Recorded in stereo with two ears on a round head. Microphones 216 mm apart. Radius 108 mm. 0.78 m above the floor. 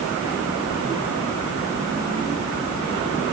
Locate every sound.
Only background noise.